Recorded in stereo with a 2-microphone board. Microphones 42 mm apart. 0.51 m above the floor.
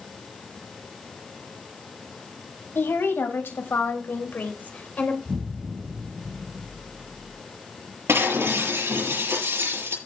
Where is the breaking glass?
85° right, 6.5 m.